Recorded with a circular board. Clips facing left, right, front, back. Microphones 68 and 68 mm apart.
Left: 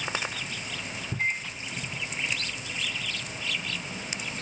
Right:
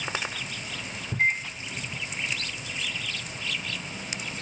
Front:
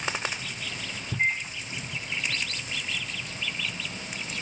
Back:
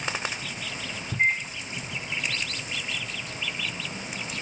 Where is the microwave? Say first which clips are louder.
Right 5 dB, back 3 dB; 130° right, 1.2 m.